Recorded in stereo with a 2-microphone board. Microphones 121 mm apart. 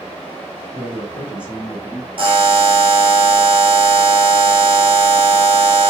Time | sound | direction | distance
0.7 | a man speaking | 20° right (ahead or behind) | 2.5 m
2.2 | a buzzer | 50° right (ahead or behind) | 1.7 m